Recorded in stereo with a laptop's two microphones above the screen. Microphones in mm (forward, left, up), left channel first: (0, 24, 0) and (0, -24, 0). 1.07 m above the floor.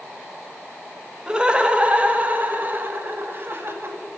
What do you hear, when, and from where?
1.3 s laughter: 20° right (ahead or behind), 1.9 m; by 4.0 s 55° right (ahead or behind), 2.5 m